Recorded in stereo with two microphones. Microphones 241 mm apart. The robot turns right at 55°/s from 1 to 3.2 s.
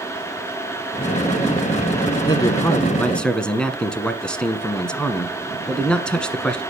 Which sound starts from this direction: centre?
A man speaking, at 2.2 s.